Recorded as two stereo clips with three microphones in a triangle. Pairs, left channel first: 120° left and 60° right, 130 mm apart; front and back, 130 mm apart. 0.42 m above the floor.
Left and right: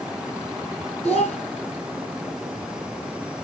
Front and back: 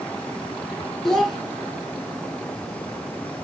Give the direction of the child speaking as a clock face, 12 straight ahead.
9 o'clock.